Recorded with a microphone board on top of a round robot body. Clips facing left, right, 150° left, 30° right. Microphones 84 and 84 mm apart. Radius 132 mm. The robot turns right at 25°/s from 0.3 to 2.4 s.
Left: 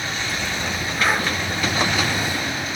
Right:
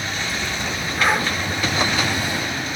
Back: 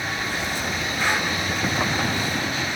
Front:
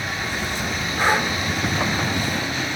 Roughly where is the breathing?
Ahead.